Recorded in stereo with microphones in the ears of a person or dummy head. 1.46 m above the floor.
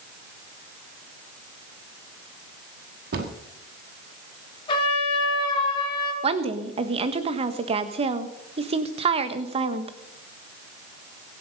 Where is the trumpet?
35° left (ahead or behind), 3.5 m.